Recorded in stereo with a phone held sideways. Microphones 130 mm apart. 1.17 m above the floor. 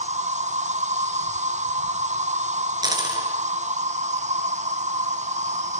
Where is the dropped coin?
30° right (ahead or behind), 5 m.